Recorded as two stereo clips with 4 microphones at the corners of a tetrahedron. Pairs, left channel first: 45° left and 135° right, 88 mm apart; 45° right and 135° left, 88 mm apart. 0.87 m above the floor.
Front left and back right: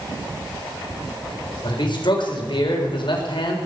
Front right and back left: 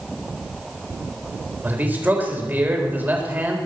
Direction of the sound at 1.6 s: 70° left.